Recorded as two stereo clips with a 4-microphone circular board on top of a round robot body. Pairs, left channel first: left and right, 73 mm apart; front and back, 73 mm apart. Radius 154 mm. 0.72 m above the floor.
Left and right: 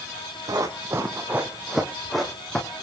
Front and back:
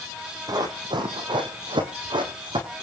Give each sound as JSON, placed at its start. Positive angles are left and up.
{"t": 0.5, "sound": "running footsteps", "azimuth_deg": -140, "distance_m": 2.5}